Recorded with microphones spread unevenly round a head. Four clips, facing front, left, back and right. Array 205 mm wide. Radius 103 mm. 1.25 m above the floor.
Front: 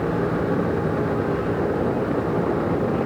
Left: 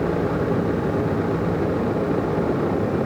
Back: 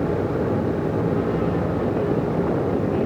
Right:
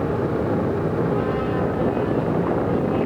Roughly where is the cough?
No cough in this recording.